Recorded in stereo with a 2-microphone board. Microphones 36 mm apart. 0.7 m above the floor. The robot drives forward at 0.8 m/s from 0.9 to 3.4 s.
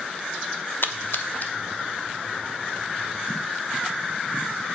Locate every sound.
0.8 s a splash: 65° left (ahead or behind), 0.7 m; by 1.5 s 45° left (ahead or behind), 1.0 m